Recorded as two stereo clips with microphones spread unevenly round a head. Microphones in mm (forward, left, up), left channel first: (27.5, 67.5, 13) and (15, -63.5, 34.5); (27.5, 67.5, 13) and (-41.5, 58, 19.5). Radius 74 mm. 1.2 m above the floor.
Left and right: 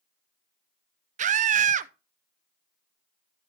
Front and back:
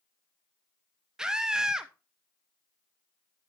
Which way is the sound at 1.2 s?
85° right.